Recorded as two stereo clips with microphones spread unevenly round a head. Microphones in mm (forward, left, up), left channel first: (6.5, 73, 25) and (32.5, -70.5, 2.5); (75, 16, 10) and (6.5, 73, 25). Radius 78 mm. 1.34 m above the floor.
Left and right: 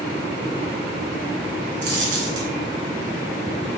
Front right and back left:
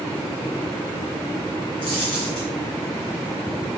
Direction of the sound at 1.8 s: 100° right.